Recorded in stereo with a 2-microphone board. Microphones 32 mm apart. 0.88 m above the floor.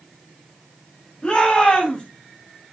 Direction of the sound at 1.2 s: 25° left (ahead or behind).